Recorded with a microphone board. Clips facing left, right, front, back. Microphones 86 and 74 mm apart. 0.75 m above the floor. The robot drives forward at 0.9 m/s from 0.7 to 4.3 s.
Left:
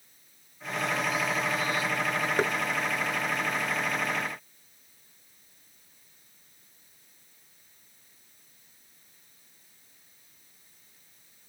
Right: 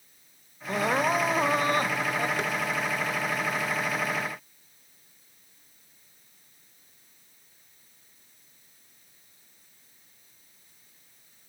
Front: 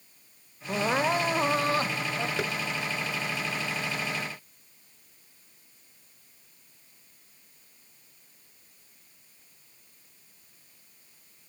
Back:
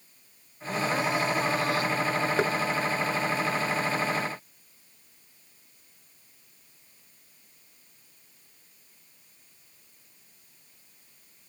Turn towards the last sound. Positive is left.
turn(degrees=150)